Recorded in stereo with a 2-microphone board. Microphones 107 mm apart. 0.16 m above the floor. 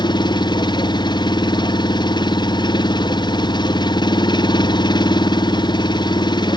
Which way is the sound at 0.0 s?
45° left (ahead or behind).